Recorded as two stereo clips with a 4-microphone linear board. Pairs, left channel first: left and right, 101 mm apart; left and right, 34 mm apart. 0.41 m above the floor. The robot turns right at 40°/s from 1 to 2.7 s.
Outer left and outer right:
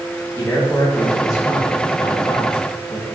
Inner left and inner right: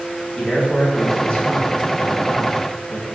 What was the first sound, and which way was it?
A man speaking, 30° left.